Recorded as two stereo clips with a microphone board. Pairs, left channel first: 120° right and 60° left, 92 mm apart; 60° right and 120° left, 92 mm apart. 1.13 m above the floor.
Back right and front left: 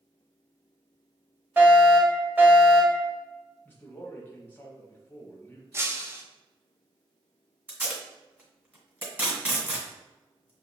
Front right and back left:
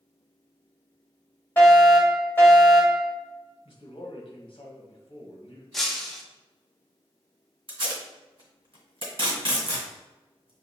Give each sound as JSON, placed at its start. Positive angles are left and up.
{"t": 1.6, "sound": "a fire alarm", "azimuth_deg": 0, "distance_m": 1.7}
{"t": 3.6, "sound": "a man speaking", "azimuth_deg": -55, "distance_m": 1.2}
{"t": 5.7, "sound": "breaking glass", "azimuth_deg": 25, "distance_m": 0.6}
{"t": 7.7, "sound": "tape being pulled", "azimuth_deg": 125, "distance_m": 1.7}